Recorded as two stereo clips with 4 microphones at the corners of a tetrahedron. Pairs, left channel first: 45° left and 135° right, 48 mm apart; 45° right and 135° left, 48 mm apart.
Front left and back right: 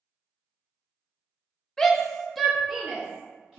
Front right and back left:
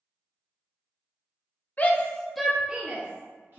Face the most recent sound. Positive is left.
turn(degrees=150)